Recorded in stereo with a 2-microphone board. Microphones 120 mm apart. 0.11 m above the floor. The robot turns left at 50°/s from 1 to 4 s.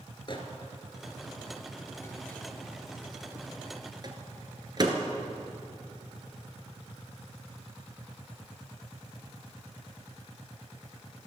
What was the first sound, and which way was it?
A microwave, 45° left (ahead or behind).